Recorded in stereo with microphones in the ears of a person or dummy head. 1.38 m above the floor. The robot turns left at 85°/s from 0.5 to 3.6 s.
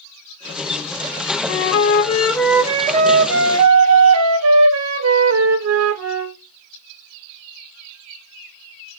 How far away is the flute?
About 0.5 m.